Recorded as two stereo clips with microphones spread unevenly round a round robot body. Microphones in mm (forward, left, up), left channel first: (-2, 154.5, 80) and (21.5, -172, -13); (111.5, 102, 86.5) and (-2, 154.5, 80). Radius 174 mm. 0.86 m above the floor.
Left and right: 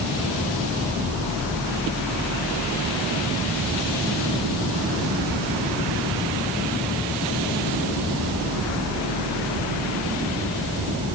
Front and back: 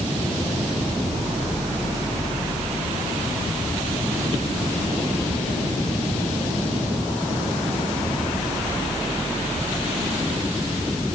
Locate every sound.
Only background noise.